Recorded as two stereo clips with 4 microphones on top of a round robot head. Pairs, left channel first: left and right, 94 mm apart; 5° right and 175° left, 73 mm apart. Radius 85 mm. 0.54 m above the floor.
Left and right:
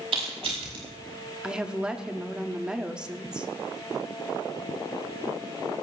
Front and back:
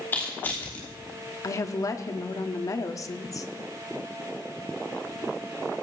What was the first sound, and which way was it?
Crushing, 75° right.